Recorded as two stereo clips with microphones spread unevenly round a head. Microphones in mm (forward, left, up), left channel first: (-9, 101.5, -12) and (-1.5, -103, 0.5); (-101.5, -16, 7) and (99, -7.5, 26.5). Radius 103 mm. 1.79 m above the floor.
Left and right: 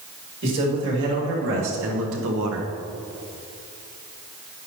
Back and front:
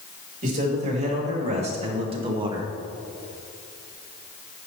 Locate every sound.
0.4 s a man speaking: 50° right, 4.5 m; by 2.7 s 70° right, 1.5 m